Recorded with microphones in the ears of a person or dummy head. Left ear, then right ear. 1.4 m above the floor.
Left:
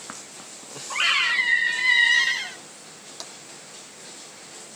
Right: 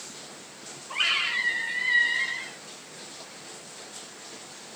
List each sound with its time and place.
0.9 s a scream: 25° left (ahead or behind), 0.7 m; by 2.6 s 75° left (ahead or behind), 1.2 m
3.2 s tapping: 65° left (ahead or behind), 1.3 m